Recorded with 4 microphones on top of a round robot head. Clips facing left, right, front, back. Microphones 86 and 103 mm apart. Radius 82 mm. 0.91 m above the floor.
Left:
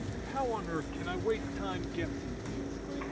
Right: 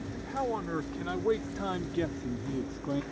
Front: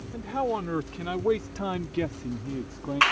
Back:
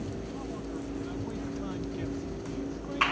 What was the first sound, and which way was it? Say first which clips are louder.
A man speaking: right 2 dB, front 9 dB; 5° right.